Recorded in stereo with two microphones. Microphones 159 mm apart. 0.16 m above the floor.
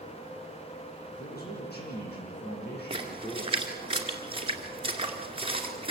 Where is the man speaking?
70° left (ahead or behind), 8 m.